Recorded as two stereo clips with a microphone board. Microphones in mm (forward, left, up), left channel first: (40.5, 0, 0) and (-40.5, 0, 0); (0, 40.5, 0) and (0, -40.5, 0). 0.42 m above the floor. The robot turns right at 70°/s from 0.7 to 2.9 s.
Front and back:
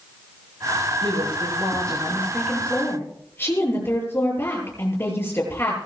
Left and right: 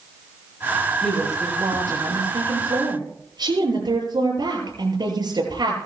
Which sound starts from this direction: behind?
A woman speaking, at 1.0 s.